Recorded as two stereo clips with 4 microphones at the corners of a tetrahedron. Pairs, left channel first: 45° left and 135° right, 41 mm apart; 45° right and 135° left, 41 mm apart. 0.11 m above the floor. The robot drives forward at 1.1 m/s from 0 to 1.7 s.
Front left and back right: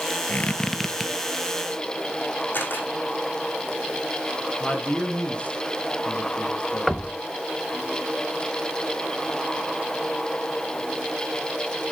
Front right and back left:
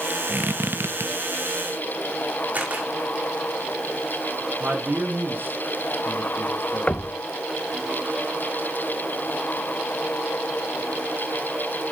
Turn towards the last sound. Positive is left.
turn(degrees=-35)